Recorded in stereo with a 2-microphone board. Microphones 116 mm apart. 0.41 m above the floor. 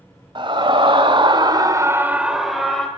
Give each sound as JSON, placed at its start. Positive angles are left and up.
{"t": 0.3, "sound": "a scream", "side_deg": -50, "distance_m": 2.0}